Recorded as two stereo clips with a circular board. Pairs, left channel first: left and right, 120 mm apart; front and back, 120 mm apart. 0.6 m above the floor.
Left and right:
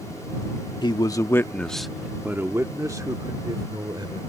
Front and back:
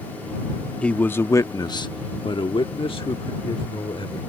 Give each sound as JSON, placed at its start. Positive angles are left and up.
{"t": 0.8, "sound": "a man speaking", "azimuth_deg": 75}